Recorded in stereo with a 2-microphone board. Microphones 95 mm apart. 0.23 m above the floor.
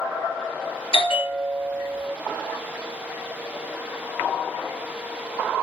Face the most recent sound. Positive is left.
turn(degrees=75)  # may be behind; listen again after turning